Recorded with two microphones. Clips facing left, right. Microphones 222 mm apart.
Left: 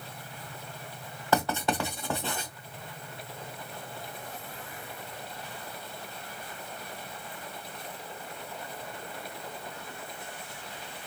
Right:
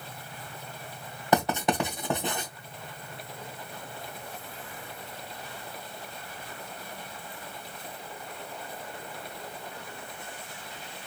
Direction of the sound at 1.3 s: 20° right (ahead or behind).